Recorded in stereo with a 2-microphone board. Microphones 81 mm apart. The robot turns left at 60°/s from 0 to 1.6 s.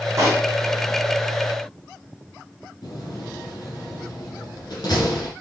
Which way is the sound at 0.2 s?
40° right (ahead or behind).